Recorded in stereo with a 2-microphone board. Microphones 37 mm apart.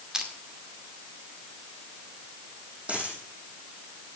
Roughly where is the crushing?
Centre.